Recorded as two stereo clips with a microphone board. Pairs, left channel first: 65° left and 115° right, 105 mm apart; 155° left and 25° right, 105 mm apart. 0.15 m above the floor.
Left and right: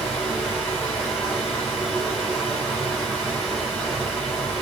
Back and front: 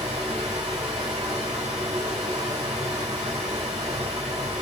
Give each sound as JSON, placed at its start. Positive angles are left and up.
{"t": 0.0, "sound": "running water", "azimuth_deg": -5, "distance_m": 2.5}